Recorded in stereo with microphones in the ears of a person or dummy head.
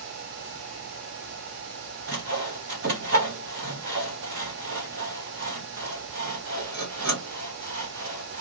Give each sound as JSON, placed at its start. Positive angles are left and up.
{"t": 2.1, "sound": "sawing", "side_deg": -40, "distance_m": 0.7}